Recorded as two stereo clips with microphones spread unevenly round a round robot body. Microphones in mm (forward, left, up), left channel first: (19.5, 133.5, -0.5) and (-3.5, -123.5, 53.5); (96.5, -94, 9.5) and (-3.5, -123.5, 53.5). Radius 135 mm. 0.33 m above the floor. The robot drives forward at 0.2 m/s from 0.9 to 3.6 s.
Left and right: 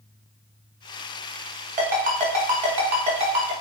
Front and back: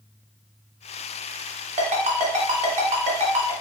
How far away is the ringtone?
About 0.8 m.